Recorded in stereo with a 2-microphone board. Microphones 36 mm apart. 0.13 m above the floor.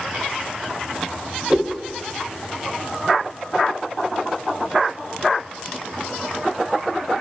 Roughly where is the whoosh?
Right.